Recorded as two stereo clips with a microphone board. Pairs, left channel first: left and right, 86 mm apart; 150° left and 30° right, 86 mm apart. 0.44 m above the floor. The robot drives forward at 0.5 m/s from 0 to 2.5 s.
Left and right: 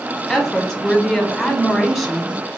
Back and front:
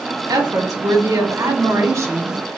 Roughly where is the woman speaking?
Ahead.